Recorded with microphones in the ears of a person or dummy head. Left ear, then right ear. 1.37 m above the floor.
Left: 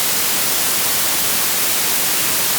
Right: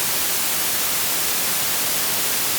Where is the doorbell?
I don't hear a doorbell.